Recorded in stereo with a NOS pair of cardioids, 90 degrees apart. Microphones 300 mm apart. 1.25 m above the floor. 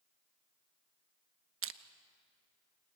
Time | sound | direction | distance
1.6 | crushing | 45° right | 1.1 m